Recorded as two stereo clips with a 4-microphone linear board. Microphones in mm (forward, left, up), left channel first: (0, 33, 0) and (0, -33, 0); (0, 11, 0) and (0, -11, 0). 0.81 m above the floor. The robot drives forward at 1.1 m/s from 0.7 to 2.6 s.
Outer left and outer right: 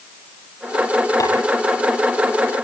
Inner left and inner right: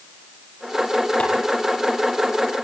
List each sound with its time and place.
1.2 s tapping: 60° left (ahead or behind), 9 m